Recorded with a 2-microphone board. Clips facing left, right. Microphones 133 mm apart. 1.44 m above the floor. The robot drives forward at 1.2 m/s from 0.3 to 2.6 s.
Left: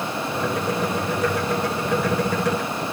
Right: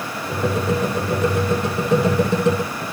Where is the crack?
No crack in this recording.